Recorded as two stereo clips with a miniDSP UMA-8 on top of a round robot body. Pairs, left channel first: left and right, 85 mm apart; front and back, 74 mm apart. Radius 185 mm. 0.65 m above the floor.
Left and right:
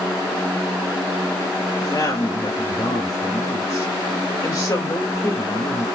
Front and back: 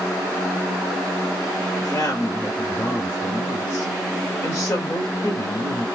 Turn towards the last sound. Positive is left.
turn(degrees=60)